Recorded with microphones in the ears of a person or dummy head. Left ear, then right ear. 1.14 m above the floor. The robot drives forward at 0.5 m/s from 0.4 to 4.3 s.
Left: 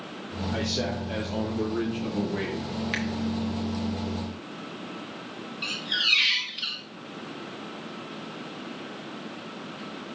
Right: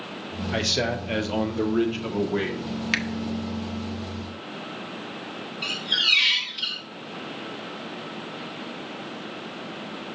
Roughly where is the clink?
No clink in this recording.